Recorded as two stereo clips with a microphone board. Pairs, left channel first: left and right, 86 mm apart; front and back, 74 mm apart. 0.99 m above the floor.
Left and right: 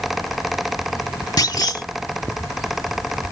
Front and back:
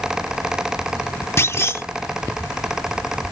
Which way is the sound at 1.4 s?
50° left.